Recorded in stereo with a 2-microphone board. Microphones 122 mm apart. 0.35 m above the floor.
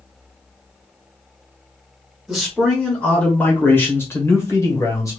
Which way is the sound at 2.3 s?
Centre (ahead or behind).